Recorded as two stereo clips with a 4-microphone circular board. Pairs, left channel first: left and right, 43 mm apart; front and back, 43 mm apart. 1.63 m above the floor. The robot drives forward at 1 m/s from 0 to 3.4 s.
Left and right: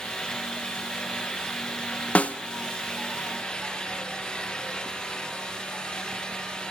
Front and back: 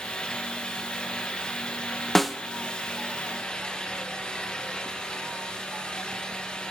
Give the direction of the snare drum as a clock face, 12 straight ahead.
9 o'clock.